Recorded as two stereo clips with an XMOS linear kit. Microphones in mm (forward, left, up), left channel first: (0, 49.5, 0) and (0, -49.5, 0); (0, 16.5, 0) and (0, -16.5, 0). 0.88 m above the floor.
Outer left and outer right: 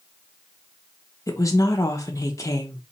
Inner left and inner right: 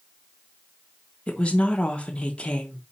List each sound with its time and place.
1.3 s a woman speaking: 35° left (ahead or behind), 0.8 m